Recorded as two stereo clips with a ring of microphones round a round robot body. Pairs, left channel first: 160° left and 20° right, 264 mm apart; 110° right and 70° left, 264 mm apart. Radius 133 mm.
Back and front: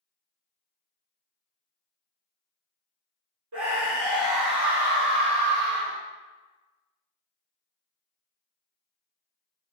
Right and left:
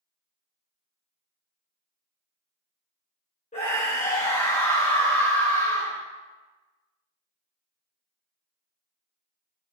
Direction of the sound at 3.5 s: 45° right.